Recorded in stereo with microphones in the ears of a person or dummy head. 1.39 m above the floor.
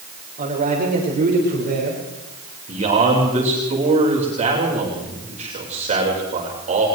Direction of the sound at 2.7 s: 35° right (ahead or behind).